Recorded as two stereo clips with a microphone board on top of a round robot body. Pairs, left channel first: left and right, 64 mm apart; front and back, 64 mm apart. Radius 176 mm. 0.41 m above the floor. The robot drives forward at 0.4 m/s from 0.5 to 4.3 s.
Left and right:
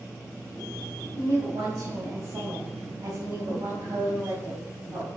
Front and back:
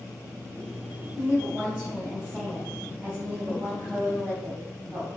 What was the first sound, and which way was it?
A woman speaking, 110° right.